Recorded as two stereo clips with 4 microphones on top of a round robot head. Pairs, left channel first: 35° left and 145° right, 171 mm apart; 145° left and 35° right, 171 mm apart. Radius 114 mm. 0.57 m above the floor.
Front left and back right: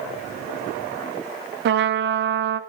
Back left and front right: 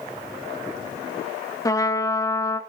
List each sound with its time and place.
1.6 s a trumpet: 145° right, 0.7 m